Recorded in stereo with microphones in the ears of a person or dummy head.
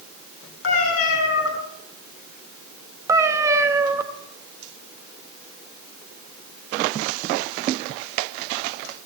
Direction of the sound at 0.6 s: 75° left (ahead or behind).